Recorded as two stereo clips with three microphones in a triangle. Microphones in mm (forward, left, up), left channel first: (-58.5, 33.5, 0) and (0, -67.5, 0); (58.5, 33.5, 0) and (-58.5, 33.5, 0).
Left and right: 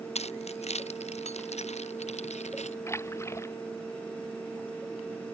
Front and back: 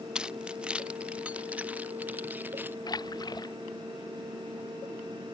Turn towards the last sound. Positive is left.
turn(degrees=50)